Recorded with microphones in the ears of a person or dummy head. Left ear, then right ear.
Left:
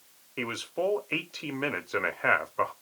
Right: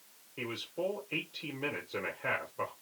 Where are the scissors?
I don't hear scissors.